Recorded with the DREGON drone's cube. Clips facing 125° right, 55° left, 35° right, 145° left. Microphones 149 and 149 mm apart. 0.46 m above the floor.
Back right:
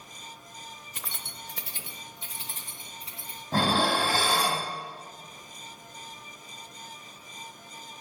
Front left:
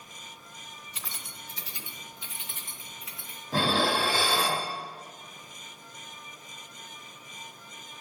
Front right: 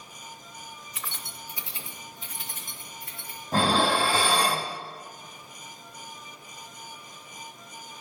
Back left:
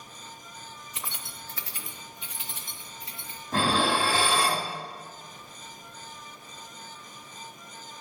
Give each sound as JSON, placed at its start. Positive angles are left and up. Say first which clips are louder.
{"t": 0.9, "sound": "keys jangling", "louder": "back right 2 dB, even", "azimuth_deg": -155, "distance_m": 0.9}
{"t": 3.5, "sound": "dishes clattering", "louder": "back right 1 dB, front right 2 dB", "azimuth_deg": -85, "distance_m": 2.0}